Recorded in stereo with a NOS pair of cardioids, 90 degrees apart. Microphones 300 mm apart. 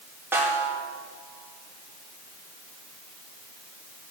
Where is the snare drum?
10° right, 4 m.